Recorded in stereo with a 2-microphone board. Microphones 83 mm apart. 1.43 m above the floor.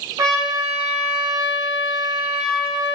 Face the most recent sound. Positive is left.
turn(degrees=-45)  # may be behind; listen again after turning